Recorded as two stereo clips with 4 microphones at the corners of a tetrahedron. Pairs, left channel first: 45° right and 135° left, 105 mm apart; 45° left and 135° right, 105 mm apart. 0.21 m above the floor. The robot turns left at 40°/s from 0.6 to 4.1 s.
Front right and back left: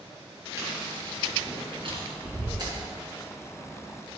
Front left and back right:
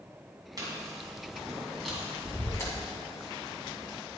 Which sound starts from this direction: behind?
Chewing, at 0.6 s.